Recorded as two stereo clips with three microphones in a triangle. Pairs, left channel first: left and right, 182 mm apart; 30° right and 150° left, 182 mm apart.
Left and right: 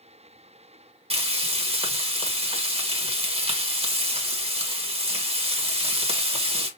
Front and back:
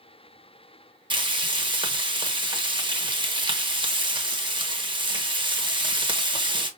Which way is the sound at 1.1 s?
145° right.